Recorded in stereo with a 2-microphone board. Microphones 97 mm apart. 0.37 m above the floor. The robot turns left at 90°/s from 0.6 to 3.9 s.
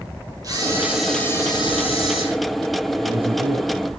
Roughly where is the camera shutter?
Behind right.